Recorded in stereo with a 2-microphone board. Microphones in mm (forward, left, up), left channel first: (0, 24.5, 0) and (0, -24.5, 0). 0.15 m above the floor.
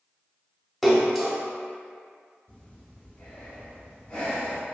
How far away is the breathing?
About 0.8 m.